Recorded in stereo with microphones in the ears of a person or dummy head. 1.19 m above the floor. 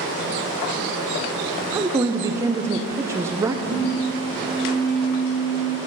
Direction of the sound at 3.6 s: 15° right (ahead or behind).